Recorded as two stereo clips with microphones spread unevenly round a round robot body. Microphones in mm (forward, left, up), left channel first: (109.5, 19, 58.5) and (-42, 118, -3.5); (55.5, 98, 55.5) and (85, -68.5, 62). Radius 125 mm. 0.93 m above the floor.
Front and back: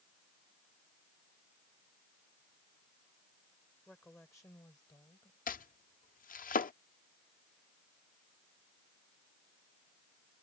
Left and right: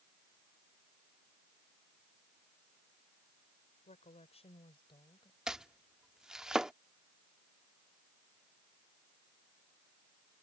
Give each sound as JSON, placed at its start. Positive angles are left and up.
{"t": 3.9, "sound": "a woman speaking", "azimuth_deg": 50}
{"t": 5.5, "sound": "chopping", "azimuth_deg": 5}